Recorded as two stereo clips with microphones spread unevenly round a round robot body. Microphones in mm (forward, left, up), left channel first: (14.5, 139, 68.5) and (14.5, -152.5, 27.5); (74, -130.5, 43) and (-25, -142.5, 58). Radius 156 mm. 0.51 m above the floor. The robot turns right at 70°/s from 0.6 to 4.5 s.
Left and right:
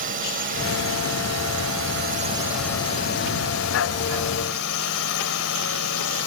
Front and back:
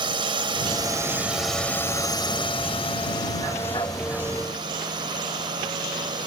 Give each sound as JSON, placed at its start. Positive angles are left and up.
{"t": 0.0, "sound": "a drone", "azimuth_deg": -145}